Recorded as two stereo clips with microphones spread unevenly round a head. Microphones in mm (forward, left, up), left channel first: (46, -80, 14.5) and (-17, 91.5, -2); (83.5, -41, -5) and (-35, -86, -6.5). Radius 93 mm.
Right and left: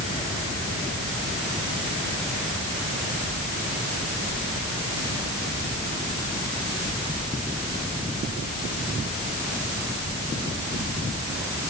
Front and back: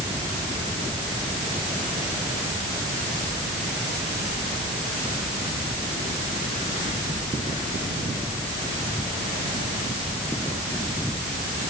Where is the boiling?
I don't hear boiling.